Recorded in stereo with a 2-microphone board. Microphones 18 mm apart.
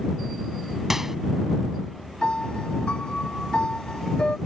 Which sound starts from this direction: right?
A microwave, at 0.9 s.